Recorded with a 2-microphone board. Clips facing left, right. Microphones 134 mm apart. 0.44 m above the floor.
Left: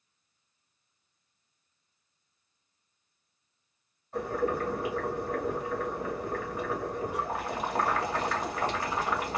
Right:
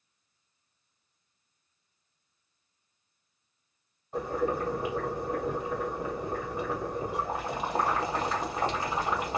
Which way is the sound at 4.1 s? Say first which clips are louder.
Even; 20° right (ahead or behind).